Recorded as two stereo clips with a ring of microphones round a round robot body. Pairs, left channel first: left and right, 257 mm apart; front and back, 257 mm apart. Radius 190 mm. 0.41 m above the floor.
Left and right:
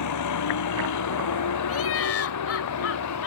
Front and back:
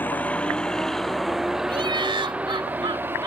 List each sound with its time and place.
0.0 s a vehicle: 85° left; by 3.3 s 100° left
1.7 s laughter: 110° left